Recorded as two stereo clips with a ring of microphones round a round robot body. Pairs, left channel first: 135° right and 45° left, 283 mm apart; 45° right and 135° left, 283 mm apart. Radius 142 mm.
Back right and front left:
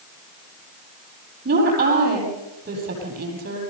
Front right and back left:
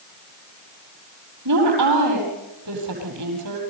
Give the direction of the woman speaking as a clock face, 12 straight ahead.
9 o'clock.